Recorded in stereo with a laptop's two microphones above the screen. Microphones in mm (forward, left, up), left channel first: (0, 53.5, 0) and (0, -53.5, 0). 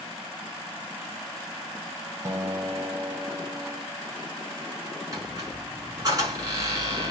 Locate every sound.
2.2 s a guitar: 25° right (ahead or behind), 1.0 m
5.1 s a squeak: 35° right (ahead or behind), 1.8 m